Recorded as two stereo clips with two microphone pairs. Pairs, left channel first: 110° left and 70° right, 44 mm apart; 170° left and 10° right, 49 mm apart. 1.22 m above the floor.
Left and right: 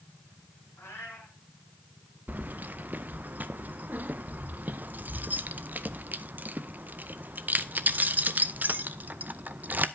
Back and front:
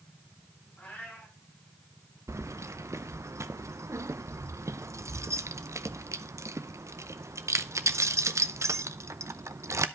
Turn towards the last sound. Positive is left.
turn(degrees=-20)